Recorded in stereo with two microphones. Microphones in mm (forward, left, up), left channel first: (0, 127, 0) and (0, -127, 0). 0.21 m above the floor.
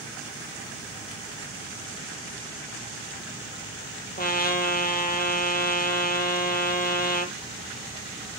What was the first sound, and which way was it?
A trumpet, 35° left (ahead or behind).